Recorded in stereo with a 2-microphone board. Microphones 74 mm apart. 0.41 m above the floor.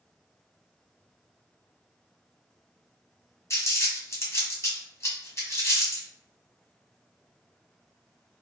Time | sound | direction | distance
3.5 | crumpling | 40° left (ahead or behind) | 1.3 m